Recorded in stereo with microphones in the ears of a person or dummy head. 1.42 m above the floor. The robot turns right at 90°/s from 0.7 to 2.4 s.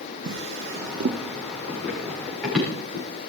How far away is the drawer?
About 1.0 m.